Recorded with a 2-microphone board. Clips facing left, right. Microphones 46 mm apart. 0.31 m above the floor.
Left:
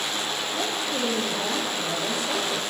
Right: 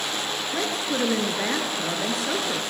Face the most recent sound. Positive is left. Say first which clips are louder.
# right 3 dB
turn(degrees=-70)  # may be behind; listen again after turning